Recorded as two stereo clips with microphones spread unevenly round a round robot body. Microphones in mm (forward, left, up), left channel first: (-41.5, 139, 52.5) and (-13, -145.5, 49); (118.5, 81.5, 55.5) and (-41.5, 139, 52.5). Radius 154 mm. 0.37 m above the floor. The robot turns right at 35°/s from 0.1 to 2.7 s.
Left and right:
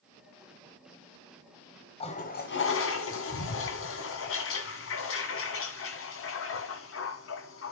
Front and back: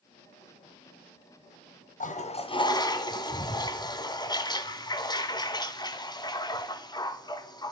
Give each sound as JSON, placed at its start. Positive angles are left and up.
{"t": 2.0, "sound": "a toilet flushing", "azimuth_deg": 25, "distance_m": 1.4}